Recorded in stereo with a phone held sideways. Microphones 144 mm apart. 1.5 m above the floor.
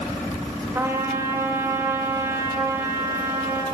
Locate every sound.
0.8 s a trumpet: 20° right (ahead or behind), 2.5 m